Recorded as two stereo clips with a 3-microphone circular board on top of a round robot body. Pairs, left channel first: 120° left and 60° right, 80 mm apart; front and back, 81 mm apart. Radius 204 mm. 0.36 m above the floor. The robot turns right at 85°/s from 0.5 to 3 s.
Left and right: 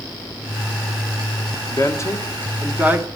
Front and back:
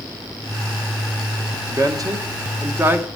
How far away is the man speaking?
About 1.2 m.